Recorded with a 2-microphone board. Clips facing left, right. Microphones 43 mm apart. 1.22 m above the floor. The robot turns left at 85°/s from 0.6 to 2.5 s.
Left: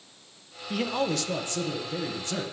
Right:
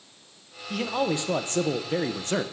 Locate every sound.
0.7 s a man speaking: 15° left, 0.9 m; by 2.4 s 135° right, 0.9 m